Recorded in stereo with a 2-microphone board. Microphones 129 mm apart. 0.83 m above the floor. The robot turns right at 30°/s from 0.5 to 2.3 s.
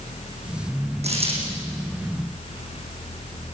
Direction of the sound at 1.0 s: 60° right (ahead or behind).